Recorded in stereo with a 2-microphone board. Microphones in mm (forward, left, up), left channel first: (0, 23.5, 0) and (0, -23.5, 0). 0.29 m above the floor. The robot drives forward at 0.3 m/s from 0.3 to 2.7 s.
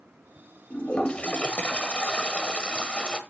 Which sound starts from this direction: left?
A toilet flushing, at 0.7 s.